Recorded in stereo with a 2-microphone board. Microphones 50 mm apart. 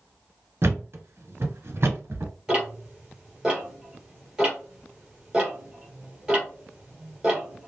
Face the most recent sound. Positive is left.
turn(degrees=-15)  # may be behind; listen again after turning